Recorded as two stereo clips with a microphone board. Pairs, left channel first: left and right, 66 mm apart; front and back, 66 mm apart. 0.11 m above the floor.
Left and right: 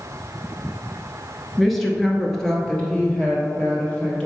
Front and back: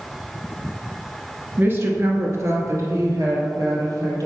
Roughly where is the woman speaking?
Behind.